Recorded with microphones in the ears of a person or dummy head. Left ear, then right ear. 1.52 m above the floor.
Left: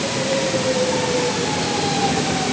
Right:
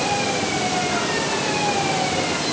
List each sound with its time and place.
Only background noise.